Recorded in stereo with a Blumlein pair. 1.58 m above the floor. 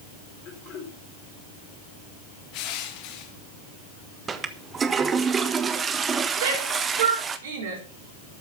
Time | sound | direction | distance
0.5 | throat clearing | 30° left | 4.5 m
2.5 | crushing | 40° left | 1.9 m
4.3 | a toilet flushing | 20° right | 1.3 m
6.4 | a shout | 60° right | 7 m